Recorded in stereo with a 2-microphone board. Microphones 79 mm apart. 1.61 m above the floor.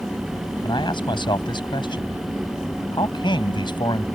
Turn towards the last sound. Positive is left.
turn(degrees=80)